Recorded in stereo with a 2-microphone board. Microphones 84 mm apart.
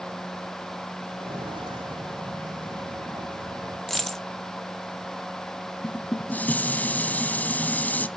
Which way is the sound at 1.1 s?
80° right.